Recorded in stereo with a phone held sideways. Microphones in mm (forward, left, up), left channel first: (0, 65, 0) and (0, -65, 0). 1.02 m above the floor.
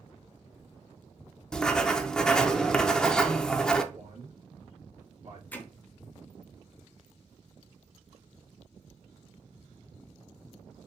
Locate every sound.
1.5 s writing: 5° left (ahead or behind), 0.5 m
3.9 s a man speaking: 65° right (ahead or behind), 1.6 m
5.5 s hammering: 15° left (ahead or behind), 0.8 m